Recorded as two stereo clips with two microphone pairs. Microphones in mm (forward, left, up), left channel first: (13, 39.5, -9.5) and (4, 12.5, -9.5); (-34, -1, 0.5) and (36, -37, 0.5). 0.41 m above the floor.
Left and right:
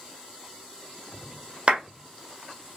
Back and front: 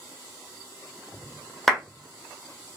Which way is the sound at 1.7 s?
125° right.